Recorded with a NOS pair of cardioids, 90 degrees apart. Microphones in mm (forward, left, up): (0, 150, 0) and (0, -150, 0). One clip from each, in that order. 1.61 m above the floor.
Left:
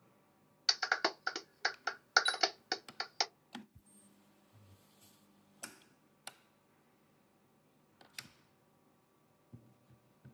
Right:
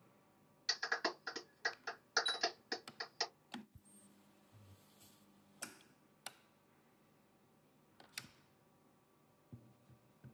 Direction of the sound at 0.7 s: 55° left.